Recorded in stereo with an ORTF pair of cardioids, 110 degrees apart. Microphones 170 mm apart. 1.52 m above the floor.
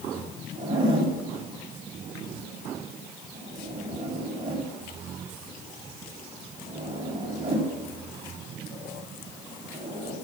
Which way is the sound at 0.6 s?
30° right.